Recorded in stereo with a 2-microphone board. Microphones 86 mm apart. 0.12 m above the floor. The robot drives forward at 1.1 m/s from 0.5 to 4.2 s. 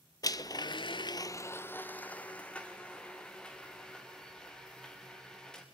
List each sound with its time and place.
0.2 s a blender: 45° left (ahead or behind), 0.6 m; by 5.6 s 5° left (ahead or behind), 3.5 m